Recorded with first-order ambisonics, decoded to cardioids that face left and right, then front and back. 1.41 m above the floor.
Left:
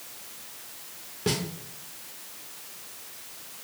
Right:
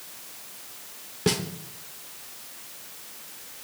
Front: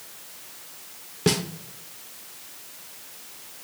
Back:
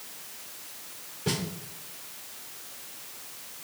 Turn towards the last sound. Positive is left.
turn(degrees=-20)